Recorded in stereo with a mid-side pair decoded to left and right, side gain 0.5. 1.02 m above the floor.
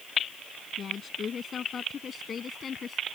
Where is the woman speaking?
45° left.